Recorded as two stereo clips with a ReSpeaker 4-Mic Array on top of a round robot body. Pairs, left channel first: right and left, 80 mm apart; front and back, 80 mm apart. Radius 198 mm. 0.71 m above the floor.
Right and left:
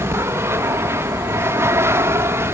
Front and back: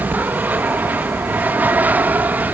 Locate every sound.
0.0 s an aircraft: 120° left